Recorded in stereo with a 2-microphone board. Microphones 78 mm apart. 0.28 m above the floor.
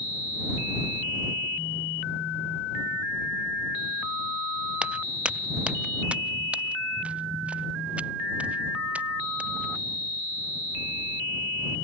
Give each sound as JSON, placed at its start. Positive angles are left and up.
{"t": 4.8, "sound": "footsteps", "side_deg": -15}